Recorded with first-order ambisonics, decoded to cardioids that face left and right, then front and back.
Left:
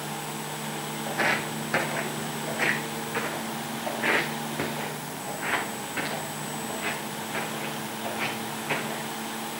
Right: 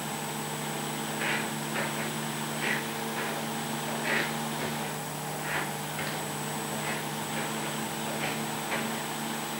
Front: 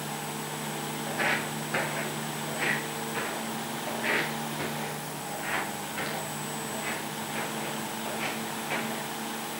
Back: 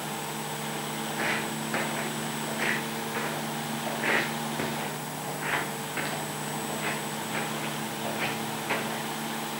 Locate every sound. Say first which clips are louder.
1.1 s footsteps: left 6 dB, front 2 dB; 85° left, 2 m; by 9.1 s 140° left, 5.5 m